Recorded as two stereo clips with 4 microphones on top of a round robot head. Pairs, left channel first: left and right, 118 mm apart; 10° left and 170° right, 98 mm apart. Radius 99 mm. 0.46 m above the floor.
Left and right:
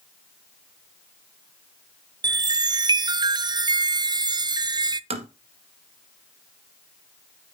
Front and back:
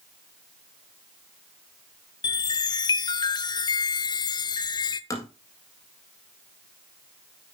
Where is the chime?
35° right, 0.7 m.